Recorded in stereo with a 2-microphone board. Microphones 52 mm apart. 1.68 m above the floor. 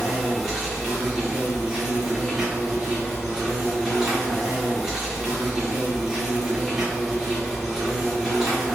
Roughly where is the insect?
Centre.